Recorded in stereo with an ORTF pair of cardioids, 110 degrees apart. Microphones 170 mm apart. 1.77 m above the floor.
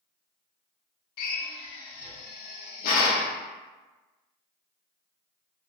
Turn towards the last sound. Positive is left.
turn(degrees=65)